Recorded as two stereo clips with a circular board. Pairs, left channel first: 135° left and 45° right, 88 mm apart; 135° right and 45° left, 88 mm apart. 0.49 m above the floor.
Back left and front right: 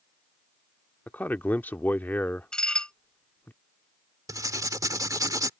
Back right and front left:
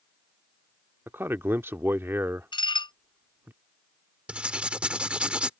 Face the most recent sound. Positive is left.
turn(degrees=-25)